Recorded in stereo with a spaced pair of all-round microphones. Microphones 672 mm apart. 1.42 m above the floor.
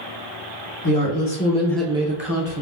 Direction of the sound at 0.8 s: 30° left (ahead or behind).